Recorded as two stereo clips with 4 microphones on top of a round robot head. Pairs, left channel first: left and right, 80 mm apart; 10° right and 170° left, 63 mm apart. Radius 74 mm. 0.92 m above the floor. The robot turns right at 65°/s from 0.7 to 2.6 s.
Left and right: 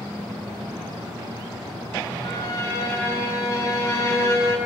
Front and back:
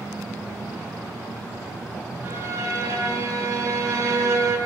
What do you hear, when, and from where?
2.2 s a violin: 115° left, 10 m; by 4.5 s 140° left, 10 m